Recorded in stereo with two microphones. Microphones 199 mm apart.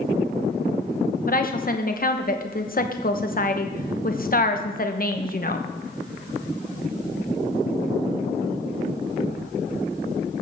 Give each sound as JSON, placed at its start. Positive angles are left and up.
{"t": 1.3, "sound": "a woman speaking", "side_deg": 50, "distance_m": 1.0}